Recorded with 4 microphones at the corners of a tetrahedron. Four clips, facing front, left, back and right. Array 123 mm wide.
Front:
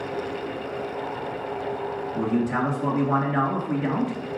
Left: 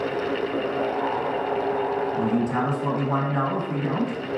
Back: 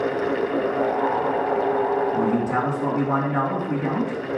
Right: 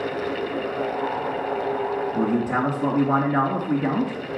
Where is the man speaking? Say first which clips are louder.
Right 3 dB, back 3 dB; 115° right, 2.5 m.